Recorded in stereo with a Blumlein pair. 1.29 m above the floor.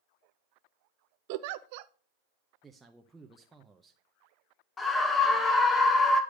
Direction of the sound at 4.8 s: 15° left.